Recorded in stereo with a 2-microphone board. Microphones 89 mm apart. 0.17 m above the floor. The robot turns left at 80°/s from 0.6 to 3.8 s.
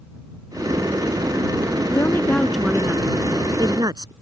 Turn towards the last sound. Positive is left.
turn(degrees=-100)